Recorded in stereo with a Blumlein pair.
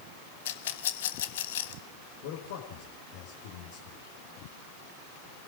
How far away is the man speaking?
About 4.5 m.